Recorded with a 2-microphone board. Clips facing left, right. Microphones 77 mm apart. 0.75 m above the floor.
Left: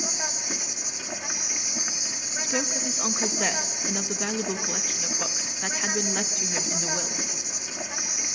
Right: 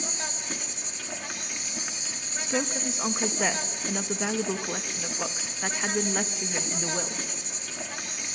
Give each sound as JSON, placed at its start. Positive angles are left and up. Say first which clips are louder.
{"t": 0.0, "sound": "an insect", "louder": "left 2 dB", "side_deg": 15, "distance_m": 1.3}
{"t": 2.4, "sound": "a woman speaking", "louder": "right 1 dB", "side_deg": -5, "distance_m": 0.8}